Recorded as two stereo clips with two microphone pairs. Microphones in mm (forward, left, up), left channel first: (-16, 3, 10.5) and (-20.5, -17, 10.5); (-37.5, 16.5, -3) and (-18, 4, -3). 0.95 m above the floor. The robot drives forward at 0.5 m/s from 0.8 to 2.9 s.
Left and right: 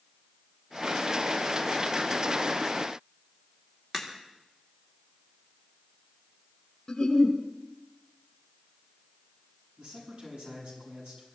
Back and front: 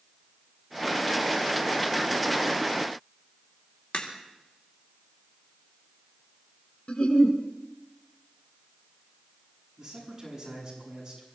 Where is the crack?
Straight behind, 2.5 m.